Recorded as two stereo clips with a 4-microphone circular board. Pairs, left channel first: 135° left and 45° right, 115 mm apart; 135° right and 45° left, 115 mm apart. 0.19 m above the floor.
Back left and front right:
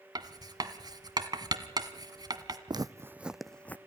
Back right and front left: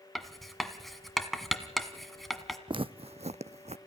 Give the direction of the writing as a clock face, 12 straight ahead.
2 o'clock.